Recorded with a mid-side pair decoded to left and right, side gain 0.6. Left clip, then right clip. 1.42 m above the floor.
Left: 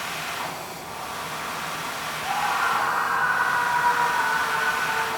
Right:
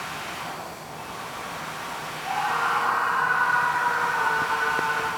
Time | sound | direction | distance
0.0 | a machine running | 50° left | 2.5 m
2.2 | a scream | 10° left | 4 m